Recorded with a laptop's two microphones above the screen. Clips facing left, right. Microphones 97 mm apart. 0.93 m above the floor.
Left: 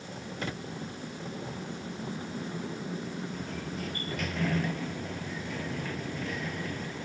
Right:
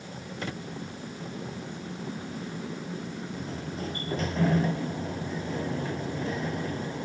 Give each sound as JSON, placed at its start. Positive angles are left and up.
{"t": 3.3, "sound": "a sliding door", "side_deg": -30}